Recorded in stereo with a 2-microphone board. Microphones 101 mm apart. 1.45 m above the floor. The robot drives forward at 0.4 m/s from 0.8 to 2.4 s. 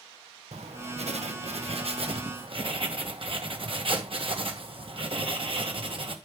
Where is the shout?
No shout in this recording.